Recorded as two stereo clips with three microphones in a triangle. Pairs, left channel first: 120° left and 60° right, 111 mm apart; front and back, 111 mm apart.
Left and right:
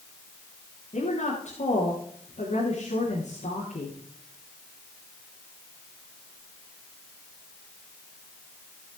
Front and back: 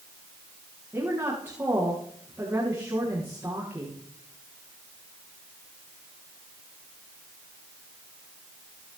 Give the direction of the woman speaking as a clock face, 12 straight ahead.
8 o'clock.